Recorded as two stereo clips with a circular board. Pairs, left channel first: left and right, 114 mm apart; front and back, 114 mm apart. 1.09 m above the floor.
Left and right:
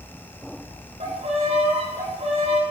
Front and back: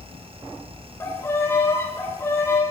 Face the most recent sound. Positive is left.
turn(degrees=-70)